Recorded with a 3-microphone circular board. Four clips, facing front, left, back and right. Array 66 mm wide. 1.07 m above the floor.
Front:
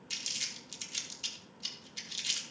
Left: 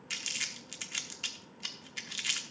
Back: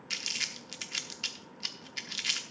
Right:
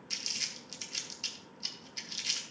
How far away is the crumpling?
About 0.9 m.